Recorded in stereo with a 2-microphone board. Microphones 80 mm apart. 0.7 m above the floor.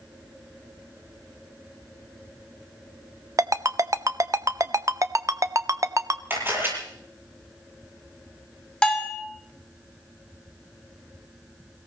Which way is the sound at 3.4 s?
40° right (ahead or behind).